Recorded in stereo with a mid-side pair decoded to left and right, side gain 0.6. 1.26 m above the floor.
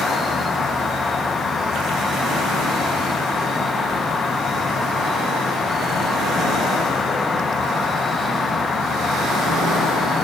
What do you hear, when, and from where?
0.0 s an insect: 35° left, 0.9 m